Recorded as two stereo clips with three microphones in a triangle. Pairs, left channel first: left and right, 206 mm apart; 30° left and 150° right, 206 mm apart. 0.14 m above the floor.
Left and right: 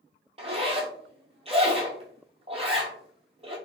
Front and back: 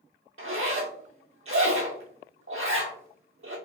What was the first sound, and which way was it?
A zipper, 155° right.